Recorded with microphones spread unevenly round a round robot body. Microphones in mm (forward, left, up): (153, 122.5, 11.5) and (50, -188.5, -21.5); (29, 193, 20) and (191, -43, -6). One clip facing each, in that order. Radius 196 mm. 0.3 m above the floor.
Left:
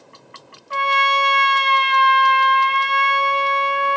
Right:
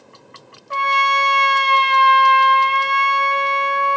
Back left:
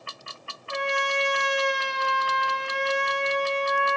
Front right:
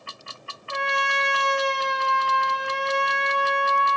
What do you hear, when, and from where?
0.7 s a trumpet: 155° right, 0.5 m